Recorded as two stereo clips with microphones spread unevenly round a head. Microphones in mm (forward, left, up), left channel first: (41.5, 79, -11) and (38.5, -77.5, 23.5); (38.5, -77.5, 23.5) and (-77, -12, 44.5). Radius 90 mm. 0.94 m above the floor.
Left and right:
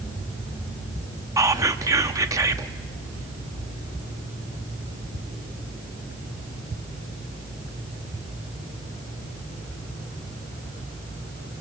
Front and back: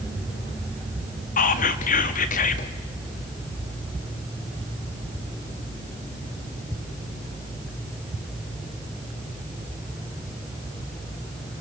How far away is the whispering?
About 1.6 m.